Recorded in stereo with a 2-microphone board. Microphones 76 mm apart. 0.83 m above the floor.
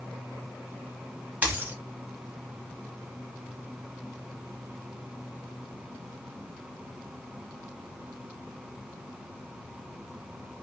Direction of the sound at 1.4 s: 20° right (ahead or behind).